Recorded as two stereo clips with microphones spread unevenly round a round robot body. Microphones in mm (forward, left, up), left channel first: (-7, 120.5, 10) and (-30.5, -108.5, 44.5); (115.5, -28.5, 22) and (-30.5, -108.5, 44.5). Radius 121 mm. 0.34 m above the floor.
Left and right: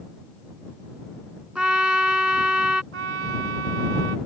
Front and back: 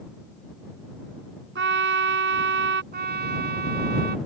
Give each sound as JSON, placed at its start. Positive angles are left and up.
{"t": 1.6, "sound": "a trumpet", "azimuth_deg": 175}
{"t": 2.9, "sound": "a trumpet", "azimuth_deg": -130}